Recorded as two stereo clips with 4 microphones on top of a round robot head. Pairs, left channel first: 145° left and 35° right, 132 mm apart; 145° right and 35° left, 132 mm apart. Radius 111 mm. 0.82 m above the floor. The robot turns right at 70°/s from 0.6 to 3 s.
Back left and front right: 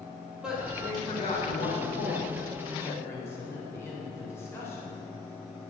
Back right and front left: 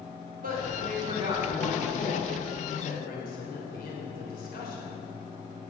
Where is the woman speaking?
50° left, 3.5 m; by 5.0 s 145° right, 3.5 m.